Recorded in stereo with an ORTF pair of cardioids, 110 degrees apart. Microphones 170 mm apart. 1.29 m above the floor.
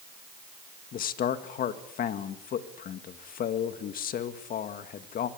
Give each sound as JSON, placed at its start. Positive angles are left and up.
{"t": 0.9, "sound": "a man speaking", "azimuth_deg": 60, "distance_m": 2.0}